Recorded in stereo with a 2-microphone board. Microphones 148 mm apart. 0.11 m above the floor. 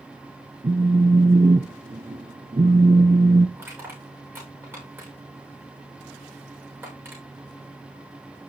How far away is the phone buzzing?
About 1.1 m.